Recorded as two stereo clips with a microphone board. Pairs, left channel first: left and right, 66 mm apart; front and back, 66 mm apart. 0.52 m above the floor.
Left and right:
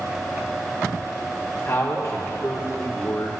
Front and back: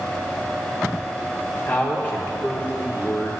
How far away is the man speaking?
About 0.9 m.